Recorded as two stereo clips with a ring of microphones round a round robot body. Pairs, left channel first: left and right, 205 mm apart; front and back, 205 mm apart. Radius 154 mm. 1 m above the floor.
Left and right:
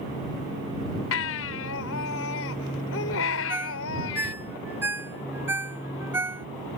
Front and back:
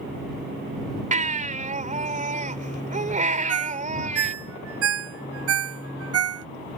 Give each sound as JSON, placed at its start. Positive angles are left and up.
{"t": 1.1, "sound": "a baby crying", "azimuth_deg": 125}
{"t": 3.5, "sound": "a ringtone", "azimuth_deg": -175}